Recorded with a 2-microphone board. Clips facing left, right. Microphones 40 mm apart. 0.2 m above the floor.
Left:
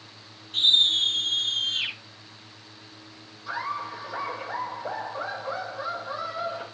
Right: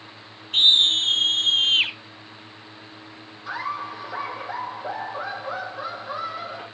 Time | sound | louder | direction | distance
0.5 | a scream | right 3 dB | 70° right (ahead or behind) | 5 m
3.5 | laughter | right 2 dB | 50° right (ahead or behind) | 9 m